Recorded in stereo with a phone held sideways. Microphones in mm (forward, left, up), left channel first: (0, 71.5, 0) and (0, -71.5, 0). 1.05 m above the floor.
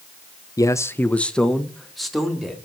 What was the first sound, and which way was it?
A man speaking, 25° left (ahead or behind).